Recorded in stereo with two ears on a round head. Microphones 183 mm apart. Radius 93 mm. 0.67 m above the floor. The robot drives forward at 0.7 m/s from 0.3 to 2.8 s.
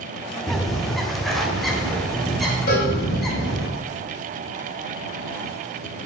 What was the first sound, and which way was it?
A bird, centre (ahead or behind).